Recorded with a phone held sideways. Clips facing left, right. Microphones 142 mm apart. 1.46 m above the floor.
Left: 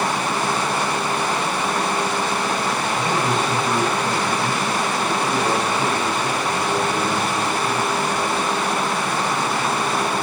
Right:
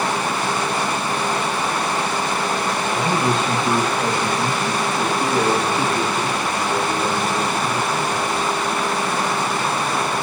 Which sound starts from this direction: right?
A man speaking, at 2.9 s.